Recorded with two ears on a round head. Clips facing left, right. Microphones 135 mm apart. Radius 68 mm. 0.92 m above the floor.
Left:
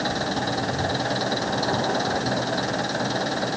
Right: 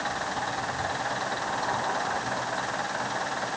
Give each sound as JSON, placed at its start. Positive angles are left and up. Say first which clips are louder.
{"t": 0.0, "sound": "an engine running", "louder": "left 5 dB", "side_deg": 45}